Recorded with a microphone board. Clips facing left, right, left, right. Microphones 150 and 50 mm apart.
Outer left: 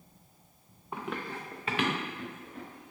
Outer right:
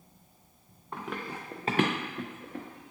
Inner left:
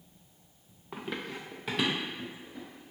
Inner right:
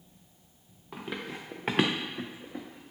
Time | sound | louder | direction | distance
0.9 | running footsteps | even, even | 10° left (ahead or behind) | 0.6 m